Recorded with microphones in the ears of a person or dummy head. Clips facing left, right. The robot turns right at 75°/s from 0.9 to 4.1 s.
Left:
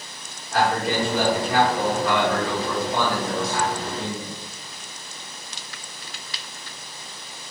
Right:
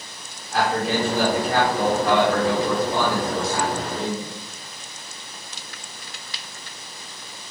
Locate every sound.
0.5 s a man speaking: 110° left, 1.7 m; by 4.3 s 10° right, 1.7 m